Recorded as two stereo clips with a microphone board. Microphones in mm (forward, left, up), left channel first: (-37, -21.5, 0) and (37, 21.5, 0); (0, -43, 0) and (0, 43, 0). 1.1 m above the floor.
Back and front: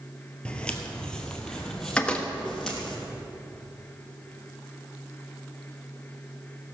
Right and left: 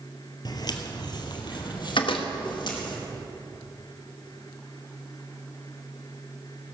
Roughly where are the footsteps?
Right.